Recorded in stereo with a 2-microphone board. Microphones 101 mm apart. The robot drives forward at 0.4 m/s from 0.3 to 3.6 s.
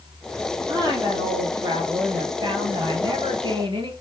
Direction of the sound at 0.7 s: 35° right (ahead or behind).